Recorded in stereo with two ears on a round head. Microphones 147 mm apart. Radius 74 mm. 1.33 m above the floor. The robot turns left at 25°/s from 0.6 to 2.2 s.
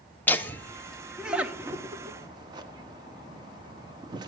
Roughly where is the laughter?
Centre.